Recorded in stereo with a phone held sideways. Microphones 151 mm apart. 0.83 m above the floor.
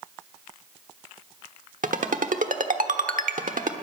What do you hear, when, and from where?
1.8 s a ringtone: 65° right (ahead or behind), 1.1 m